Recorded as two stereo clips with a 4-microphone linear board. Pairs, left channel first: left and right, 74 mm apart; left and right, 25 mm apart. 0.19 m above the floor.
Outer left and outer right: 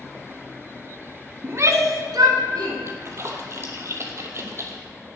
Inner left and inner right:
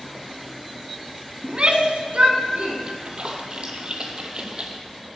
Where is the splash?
40° right (ahead or behind), 1.5 m.